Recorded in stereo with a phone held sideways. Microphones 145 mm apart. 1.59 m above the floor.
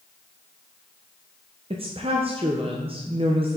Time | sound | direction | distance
1.7 | a woman speaking | 40° right (ahead or behind) | 0.6 m